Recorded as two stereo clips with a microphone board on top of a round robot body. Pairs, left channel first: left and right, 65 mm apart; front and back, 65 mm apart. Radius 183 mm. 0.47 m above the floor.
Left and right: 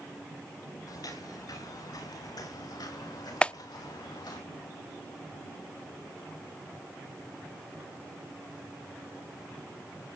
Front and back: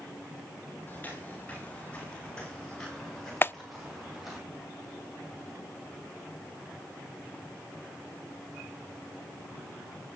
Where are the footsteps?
65° left, 8.5 m; by 4.4 s 95° left, 8.5 m.